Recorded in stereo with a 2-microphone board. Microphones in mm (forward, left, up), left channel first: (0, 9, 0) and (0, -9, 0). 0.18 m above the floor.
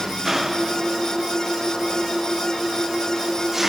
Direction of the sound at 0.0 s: 20° right (ahead or behind).